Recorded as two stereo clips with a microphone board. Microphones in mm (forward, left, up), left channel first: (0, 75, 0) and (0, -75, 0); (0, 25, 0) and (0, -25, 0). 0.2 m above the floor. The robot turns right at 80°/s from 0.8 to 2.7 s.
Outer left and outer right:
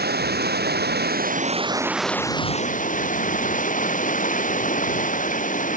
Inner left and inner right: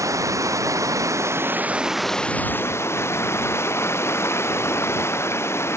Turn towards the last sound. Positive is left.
turn(degrees=55)